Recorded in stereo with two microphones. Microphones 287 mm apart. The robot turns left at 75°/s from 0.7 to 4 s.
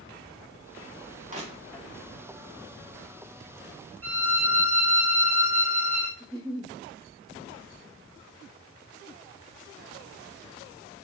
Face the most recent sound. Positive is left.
turn(degrees=-15)  # may be behind; listen again after turning